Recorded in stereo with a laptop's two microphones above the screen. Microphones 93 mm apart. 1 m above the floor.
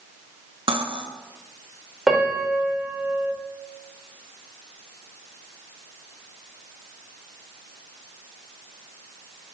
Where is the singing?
No singing in this recording.